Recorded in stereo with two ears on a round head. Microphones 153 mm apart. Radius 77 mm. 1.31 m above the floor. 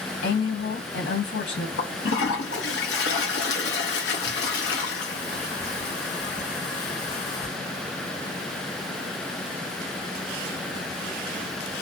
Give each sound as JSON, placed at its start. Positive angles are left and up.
{"t": 0.2, "sound": "a woman speaking", "side_deg": 80, "distance_m": 1.6}
{"t": 1.8, "sound": "a toilet flushing", "side_deg": 70, "distance_m": 1.0}